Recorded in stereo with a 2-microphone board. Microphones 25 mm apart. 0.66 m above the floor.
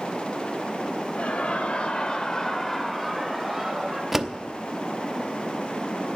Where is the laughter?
65° left (ahead or behind), 2.5 m; by 4.0 s 20° right (ahead or behind), 3 m.